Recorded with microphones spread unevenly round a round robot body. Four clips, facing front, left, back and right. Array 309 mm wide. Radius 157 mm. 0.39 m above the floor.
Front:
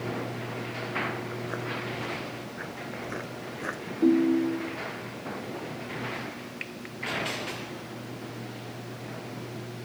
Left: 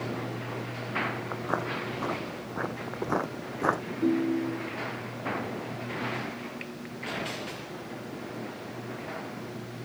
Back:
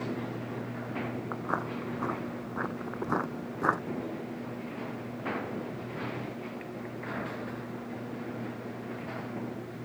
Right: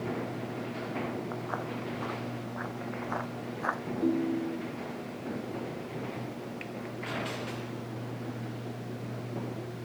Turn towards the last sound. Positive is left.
turn(degrees=10)